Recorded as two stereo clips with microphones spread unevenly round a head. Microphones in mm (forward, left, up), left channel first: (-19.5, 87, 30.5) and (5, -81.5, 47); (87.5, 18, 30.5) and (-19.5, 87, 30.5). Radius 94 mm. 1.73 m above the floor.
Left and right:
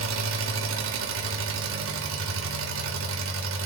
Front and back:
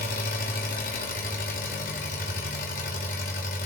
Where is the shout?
No shout in this recording.